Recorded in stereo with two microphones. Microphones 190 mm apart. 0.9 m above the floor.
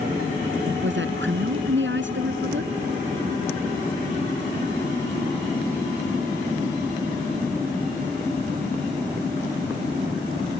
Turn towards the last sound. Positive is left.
turn(degrees=-85)